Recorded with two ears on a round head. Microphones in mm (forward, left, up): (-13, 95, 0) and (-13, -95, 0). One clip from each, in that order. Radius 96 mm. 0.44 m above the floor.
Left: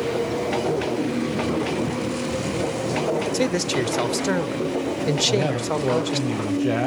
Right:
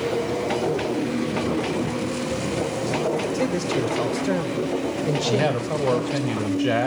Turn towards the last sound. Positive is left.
turn(degrees=-35)  # may be behind; listen again after turning